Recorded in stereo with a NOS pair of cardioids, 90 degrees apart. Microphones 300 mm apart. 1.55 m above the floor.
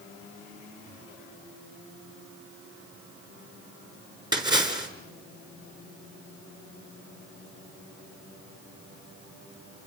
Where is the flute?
No flute in this recording.